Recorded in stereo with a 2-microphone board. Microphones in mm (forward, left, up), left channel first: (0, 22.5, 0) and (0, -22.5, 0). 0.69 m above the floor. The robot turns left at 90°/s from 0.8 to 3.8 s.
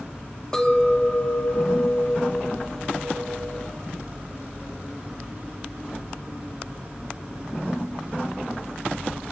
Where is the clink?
165° left, 1.7 m; by 3.7 s 95° right, 1.7 m.